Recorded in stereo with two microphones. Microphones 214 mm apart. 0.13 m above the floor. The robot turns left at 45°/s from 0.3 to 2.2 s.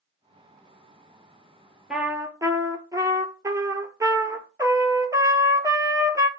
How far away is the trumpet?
About 0.6 m.